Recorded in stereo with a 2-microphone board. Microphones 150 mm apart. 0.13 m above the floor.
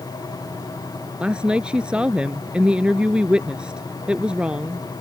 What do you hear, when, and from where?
1.2 s a woman speaking: 5° right (ahead or behind)